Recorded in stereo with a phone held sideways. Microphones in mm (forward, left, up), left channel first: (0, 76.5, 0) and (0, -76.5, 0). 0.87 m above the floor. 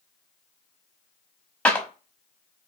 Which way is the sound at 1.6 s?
10° left (ahead or behind).